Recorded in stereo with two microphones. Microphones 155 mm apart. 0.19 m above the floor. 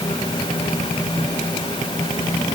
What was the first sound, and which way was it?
Only background noise.